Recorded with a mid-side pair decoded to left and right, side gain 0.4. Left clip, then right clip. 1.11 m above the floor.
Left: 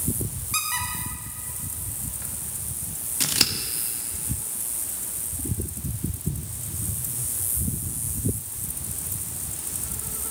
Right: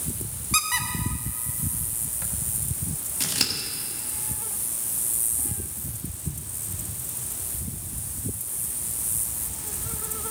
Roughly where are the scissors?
Ahead left.